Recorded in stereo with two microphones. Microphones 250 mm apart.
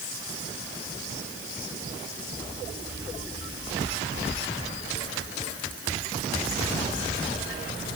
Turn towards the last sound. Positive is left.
No sound to turn to.